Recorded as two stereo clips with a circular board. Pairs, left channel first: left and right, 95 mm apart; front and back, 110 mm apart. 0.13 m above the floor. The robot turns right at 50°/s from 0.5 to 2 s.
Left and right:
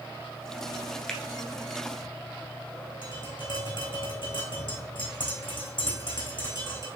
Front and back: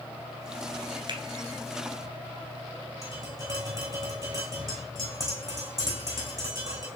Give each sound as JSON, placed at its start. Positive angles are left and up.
{"t": 1.1, "sound": "a finger snap", "azimuth_deg": 170, "distance_m": 1.3}
{"t": 3.0, "sound": "tapping", "azimuth_deg": 120, "distance_m": 4.0}